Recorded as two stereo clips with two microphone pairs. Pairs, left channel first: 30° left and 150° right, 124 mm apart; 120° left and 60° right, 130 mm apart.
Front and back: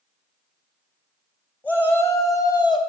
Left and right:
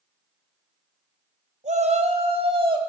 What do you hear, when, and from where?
1.6 s a shout: 45° right, 3.5 m; by 2.8 s 15° right, 2.5 m